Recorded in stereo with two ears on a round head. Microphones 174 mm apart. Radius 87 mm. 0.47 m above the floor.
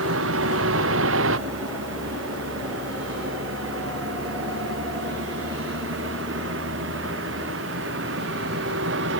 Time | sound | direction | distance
0.0 | a vehicle | 75° right (ahead or behind) | ?